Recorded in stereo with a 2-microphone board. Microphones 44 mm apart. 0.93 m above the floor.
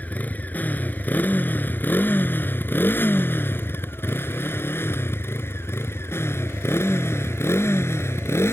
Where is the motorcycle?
40° left (ahead or behind); by 8.5 s 80° left.